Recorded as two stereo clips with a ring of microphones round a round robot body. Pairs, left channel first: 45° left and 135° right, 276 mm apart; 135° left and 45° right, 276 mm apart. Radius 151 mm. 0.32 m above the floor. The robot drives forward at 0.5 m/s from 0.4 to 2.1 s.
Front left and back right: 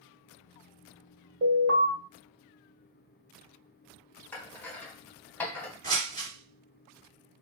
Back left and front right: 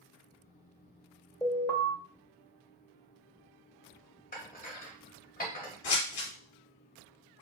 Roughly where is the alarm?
Behind right.